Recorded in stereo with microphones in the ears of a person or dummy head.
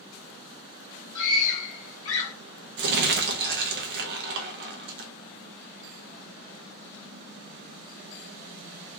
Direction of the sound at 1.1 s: 15° left (ahead or behind).